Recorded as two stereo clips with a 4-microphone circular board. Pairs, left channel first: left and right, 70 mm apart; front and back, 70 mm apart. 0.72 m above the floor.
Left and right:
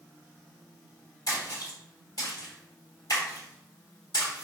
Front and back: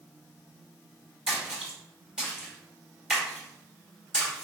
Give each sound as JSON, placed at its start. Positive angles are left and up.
{"t": 1.3, "sound": "a splash", "azimuth_deg": 105, "distance_m": 1.7}